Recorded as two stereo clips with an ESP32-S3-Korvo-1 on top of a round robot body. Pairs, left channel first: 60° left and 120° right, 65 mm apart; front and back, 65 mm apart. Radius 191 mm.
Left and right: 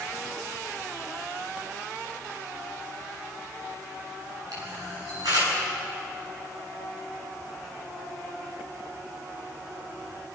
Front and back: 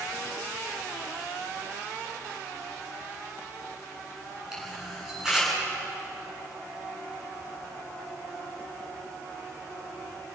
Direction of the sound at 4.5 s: 100° right.